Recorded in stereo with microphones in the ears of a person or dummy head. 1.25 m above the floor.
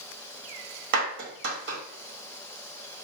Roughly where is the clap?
Right.